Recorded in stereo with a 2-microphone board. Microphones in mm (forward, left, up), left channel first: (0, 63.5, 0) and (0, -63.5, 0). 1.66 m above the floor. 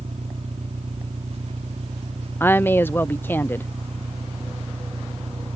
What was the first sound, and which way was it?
An engine running, 60° right (ahead or behind).